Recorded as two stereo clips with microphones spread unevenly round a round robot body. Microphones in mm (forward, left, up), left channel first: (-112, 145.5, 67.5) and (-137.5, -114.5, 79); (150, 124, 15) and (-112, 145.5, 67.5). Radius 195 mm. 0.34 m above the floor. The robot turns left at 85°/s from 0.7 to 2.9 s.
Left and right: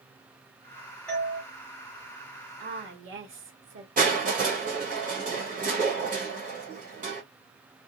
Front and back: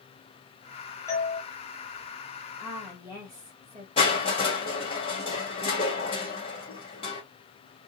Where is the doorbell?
10° left, 2.0 m; by 1.4 s 20° right, 2.0 m.